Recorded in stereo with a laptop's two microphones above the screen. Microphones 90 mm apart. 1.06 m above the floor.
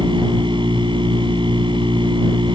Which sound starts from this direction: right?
A machine running, at 0.0 s.